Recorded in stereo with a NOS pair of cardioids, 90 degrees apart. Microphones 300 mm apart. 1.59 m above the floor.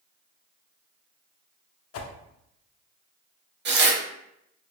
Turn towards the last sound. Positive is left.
turn(degrees=-35)